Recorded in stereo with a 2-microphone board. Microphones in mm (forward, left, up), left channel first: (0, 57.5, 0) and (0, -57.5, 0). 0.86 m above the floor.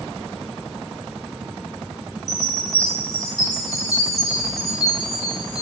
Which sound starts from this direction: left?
A chime, at 2.3 s.